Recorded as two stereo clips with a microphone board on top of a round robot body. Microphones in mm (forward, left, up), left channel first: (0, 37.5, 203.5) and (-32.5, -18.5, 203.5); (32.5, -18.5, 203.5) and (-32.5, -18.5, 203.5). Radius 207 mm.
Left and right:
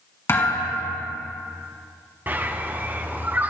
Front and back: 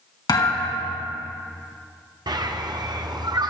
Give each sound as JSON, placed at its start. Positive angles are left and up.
{"t": 0.3, "sound": "a thud", "azimuth_deg": 5, "distance_m": 3.5}
{"t": 2.3, "sound": "a bird", "azimuth_deg": 175, "distance_m": 1.2}